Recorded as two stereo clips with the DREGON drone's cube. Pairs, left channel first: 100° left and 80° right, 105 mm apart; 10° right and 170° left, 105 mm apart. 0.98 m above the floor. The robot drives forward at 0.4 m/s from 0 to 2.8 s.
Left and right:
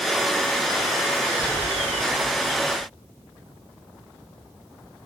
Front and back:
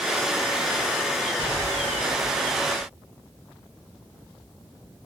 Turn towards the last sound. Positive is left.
turn(degrees=175)